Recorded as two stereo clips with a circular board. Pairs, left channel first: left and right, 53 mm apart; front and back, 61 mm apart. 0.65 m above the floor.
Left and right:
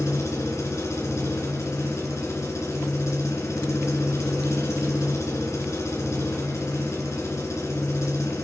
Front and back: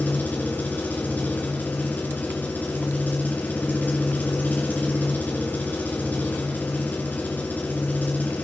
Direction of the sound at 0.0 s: 65° left.